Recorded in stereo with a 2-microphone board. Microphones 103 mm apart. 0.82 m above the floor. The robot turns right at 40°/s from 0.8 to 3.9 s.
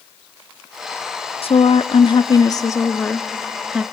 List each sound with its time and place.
1.4 s a woman speaking: 95° left, 0.8 m; by 3.8 s 165° right, 0.8 m